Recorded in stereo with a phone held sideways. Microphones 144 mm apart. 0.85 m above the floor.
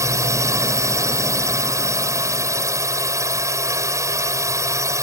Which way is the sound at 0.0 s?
20° right (ahead or behind).